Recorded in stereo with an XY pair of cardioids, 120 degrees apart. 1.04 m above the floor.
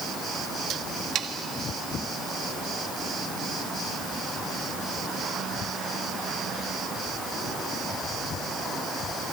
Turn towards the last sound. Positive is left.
turn(degrees=-55)